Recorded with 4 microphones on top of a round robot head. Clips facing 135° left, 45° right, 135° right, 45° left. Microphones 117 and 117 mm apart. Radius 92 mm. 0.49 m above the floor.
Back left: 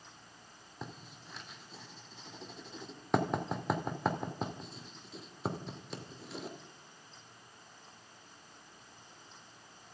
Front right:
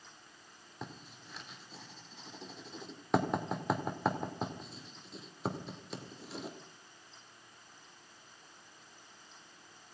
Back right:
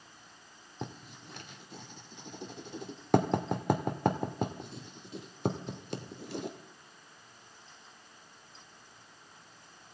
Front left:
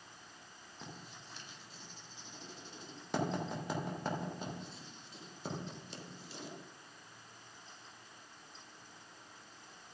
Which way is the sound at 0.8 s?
130° right.